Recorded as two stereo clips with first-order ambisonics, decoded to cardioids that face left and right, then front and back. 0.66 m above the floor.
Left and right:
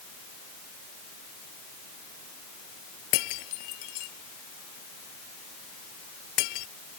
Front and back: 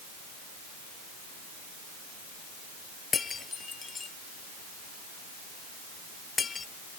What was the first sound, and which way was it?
Breaking glass, 75° left.